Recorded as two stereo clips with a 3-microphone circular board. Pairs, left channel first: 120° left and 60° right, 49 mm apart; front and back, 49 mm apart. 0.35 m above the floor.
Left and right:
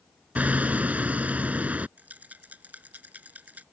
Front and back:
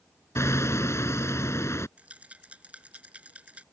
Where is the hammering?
Straight ahead.